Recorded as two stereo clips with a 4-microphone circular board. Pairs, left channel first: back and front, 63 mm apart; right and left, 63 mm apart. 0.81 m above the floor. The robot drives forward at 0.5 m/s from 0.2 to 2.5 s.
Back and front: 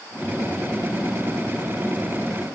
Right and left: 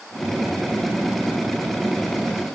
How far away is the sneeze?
I don't hear a sneeze.